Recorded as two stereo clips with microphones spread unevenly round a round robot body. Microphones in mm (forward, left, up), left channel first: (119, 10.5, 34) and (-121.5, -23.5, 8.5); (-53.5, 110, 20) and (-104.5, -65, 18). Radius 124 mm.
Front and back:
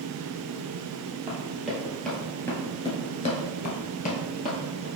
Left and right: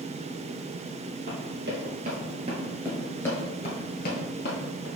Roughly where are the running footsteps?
Right.